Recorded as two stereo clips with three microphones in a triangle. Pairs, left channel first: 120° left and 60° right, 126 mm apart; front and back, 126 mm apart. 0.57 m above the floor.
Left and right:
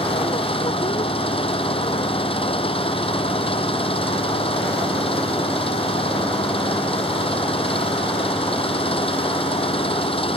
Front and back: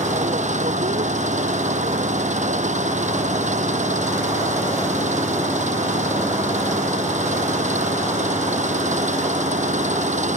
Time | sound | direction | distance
0.0 | an engine running | 160° left | ?